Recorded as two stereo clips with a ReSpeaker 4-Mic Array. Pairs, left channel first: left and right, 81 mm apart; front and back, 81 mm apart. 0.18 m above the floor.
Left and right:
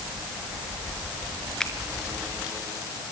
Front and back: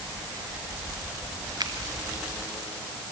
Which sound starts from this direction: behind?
A finger snap, at 1.6 s.